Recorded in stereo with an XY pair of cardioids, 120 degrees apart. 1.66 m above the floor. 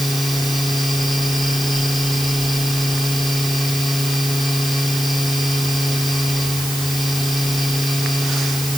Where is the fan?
5° left.